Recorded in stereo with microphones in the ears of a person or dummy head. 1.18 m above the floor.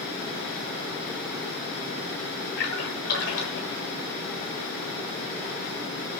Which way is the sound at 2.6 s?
60° left (ahead or behind).